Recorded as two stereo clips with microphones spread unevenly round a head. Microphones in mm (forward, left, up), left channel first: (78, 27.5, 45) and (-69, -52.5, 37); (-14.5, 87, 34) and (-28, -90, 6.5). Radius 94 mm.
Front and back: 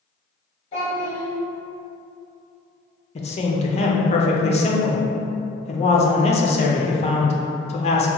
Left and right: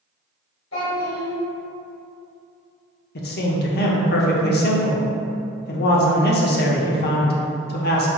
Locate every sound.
0.7 s a child speaking: 85° left, 1.8 m
3.1 s a man speaking: 70° left, 0.7 m